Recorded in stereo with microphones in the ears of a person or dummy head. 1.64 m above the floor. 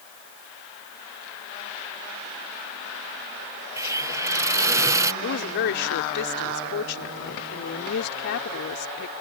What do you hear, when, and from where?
3.8 s a hiss: 20° right (ahead or behind)
5.2 s a woman speaking: 60° left (ahead or behind)